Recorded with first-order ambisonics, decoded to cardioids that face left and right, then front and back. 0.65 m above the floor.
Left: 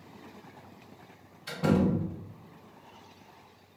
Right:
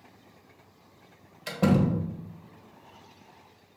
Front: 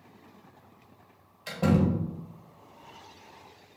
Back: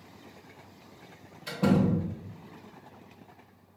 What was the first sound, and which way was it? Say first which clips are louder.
A door slam: right 2 dB, even; 75° right.